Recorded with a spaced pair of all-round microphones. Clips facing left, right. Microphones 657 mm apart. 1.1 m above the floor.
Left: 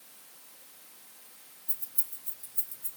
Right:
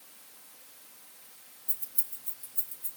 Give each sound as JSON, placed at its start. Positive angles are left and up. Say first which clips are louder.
{"t": 1.7, "sound": "keys jangling", "louder": "right 1 dB", "side_deg": -40, "distance_m": 2.5}